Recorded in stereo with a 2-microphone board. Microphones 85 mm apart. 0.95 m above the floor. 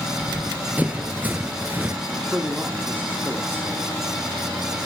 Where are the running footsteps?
20° right (ahead or behind), 1.3 m.